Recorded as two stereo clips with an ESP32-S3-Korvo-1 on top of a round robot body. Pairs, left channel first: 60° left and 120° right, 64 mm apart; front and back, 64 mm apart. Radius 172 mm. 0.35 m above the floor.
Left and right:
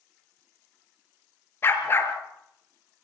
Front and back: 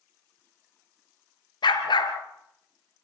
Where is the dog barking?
Straight ahead, 2.5 m.